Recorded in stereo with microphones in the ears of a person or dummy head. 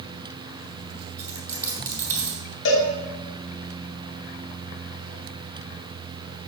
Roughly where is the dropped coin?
Centre.